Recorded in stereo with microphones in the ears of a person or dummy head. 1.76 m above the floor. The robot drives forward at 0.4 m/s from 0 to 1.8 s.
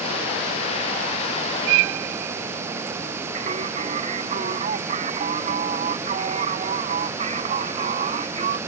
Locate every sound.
3.4 s singing: 40° right (ahead or behind)